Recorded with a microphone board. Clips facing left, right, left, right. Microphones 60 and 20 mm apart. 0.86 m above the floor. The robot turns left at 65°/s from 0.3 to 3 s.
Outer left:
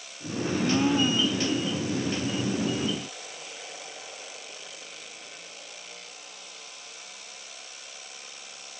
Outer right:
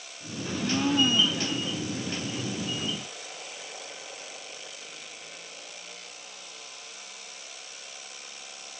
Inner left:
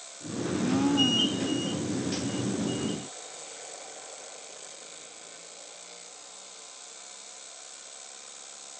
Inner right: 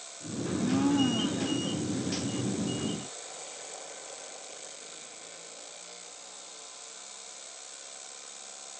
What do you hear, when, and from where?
0.5 s a blender: 45° left, 2 m; by 1.6 s 30° right, 2 m